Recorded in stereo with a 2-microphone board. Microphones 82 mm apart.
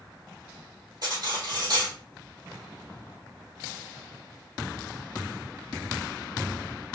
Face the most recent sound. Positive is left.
turn(degrees=-55)  # may be behind; listen again after turning